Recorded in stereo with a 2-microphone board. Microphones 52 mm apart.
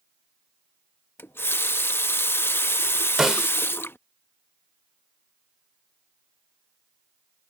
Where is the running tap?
45° left (ahead or behind).